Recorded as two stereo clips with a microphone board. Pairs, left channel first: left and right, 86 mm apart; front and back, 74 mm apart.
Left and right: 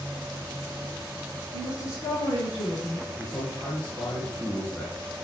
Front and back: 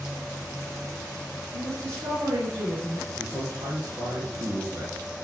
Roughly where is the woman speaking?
Behind left.